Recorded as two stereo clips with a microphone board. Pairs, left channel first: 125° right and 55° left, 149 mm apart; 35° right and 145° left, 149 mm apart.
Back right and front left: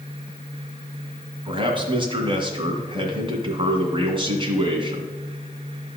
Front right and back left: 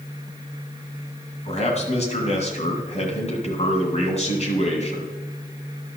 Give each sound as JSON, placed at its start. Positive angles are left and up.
{"t": 1.4, "sound": "a man speaking", "azimuth_deg": 5, "distance_m": 2.0}